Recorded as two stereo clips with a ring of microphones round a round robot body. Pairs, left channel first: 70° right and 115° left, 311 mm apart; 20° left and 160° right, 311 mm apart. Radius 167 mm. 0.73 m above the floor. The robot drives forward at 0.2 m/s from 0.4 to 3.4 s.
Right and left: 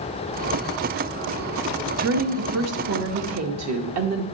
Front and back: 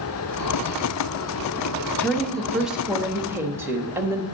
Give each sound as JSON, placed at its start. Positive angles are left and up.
{"t": 2.0, "sound": "a woman speaking", "azimuth_deg": 105, "distance_m": 1.2}